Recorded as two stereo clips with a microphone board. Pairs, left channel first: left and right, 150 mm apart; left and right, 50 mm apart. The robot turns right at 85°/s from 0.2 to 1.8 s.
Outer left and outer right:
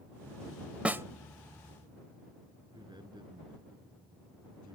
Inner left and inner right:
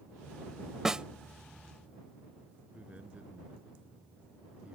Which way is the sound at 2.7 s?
30° right (ahead or behind).